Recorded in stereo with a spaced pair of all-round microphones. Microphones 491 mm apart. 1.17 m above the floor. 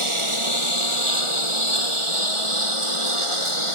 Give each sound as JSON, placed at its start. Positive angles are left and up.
{"t": 0.0, "sound": "a lawn mower", "side_deg": -80}